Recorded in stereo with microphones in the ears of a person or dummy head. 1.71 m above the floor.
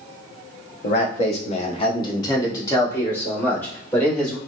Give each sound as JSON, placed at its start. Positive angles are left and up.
{"t": 0.8, "sound": "a man speaking", "side_deg": 50, "distance_m": 0.9}